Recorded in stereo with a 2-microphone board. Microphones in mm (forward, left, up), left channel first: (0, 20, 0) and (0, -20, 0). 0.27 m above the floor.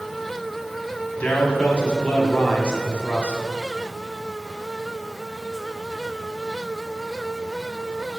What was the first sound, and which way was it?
A man speaking, 35° left (ahead or behind).